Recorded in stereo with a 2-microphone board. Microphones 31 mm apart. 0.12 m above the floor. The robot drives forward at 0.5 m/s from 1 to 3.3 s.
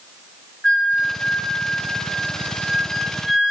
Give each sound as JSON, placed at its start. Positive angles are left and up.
{"t": 0.6, "sound": "a flute", "side_deg": 15, "distance_m": 4.5}